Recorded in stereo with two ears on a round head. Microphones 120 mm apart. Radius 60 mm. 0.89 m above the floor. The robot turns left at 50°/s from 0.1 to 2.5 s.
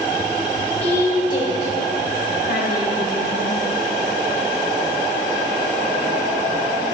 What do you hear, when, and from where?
0.8 s a woman speaking: 15° left (ahead or behind), 4.5 m; by 3.6 s 80° left, 4.5 m